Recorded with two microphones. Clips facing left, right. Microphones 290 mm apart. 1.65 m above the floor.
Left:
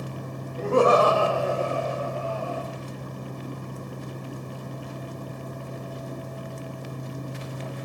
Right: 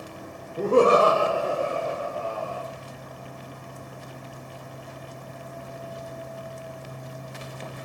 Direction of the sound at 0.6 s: 50° right (ahead or behind).